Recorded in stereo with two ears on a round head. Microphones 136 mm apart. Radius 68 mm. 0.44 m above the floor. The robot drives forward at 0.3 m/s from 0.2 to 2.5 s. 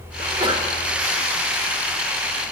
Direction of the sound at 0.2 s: 30° right (ahead or behind).